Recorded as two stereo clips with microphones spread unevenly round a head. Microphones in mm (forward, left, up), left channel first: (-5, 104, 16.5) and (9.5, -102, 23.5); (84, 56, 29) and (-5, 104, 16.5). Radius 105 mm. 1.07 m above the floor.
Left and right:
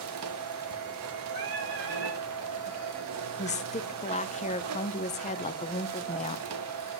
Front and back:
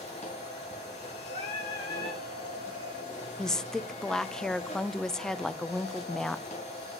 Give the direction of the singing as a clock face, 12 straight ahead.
2 o'clock.